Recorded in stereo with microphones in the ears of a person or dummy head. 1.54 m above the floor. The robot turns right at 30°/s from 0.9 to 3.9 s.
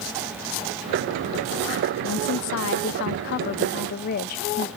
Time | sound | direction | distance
2.0 | a woman speaking | 80° left | 0.6 m